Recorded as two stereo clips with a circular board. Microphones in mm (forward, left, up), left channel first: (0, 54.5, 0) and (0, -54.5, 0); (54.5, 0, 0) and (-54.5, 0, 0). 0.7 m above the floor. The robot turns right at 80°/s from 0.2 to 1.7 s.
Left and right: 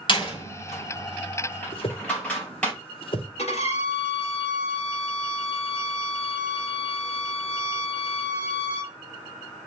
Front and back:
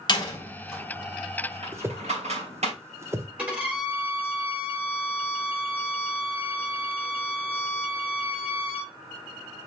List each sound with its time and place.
0.1 s a door slam: 45° left, 3 m; by 2.7 s 165° left, 3 m
1.7 s a whoosh: 115° left, 1.0 m
3.4 s a violin: 105° left, 2 m